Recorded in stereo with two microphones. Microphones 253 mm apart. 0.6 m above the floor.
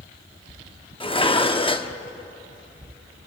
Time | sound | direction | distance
1.0 | dishes clattering | 20° left (ahead or behind) | 0.7 m